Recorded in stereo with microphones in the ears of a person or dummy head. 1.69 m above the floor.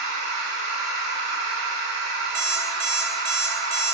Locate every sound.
0.0 s a machine running: 70° right (ahead or behind), 3 m
2.4 s an alarm clock: 40° right (ahead or behind), 1.1 m